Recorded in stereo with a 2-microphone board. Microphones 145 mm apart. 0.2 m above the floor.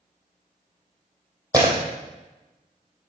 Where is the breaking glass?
25° right (ahead or behind), 3 m.